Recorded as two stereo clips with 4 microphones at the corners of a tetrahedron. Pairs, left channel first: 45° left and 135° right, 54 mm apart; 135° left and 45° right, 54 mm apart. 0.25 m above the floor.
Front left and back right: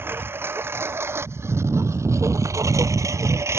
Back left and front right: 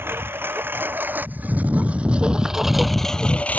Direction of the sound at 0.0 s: 90° right.